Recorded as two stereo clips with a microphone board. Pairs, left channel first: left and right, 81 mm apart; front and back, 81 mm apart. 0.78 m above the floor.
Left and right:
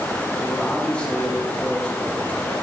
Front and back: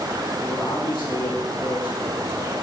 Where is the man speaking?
15° left, 3 m.